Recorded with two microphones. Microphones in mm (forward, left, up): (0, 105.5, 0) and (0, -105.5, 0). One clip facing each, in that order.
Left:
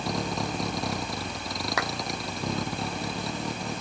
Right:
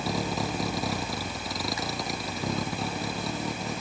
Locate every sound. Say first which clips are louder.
0.0 s a vehicle: right 1 dB; 5° right (ahead or behind); by 3.8 s centre (ahead or behind)
1.8 s a clap: left 3 dB; 75° left (ahead or behind)